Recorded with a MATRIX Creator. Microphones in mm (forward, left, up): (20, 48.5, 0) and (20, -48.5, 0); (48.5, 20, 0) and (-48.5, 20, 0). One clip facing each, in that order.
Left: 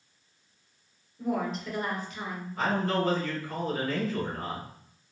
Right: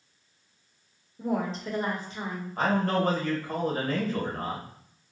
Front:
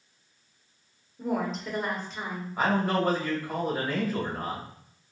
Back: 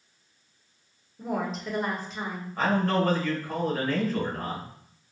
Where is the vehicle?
No vehicle in this recording.